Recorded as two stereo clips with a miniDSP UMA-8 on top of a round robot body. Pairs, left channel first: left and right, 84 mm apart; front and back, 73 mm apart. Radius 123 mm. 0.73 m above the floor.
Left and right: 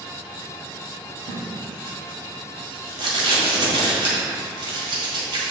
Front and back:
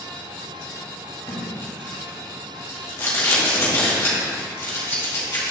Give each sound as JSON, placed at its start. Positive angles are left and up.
{"t": 1.3, "sound": "tape being pulled", "azimuth_deg": -55, "distance_m": 1.9}